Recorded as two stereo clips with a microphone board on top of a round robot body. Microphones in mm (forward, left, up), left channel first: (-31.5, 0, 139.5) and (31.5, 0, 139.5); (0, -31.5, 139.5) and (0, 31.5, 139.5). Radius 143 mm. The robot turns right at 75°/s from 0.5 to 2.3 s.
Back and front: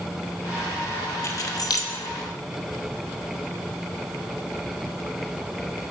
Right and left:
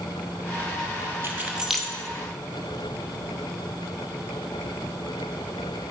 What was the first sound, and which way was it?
Keys jangling, 140° left.